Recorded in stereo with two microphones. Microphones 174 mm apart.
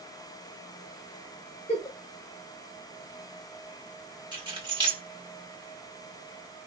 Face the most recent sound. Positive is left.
turn(degrees=-30)  # may be behind; listen again after turning